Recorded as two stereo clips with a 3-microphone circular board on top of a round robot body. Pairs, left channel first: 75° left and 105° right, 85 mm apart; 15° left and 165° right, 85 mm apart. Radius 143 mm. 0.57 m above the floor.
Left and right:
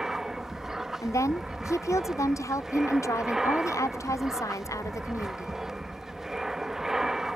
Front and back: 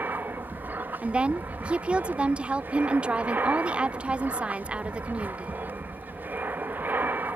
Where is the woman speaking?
120° left.